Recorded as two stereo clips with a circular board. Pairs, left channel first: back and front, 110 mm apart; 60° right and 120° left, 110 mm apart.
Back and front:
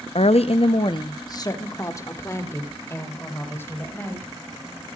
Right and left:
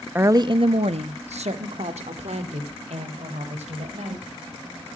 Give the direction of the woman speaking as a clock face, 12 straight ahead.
6 o'clock.